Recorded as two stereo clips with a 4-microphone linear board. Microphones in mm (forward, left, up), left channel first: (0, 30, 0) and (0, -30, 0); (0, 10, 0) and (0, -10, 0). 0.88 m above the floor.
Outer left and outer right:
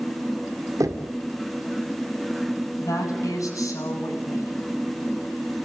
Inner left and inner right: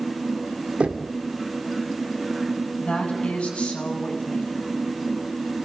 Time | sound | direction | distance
0.8 | knocking | 70° right (ahead or behind) | 2.5 m
2.8 | a woman speaking | 65° left (ahead or behind) | 8.5 m